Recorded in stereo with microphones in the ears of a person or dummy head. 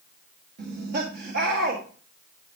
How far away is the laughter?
About 2.0 m.